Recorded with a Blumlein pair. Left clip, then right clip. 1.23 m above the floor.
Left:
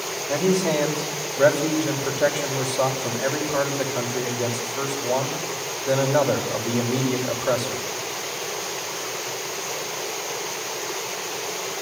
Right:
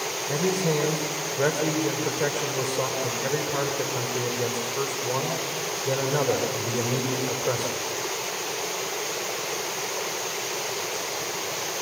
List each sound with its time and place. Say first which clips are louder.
0.3 s a man speaking: left 4 dB; 10° left, 5.5 m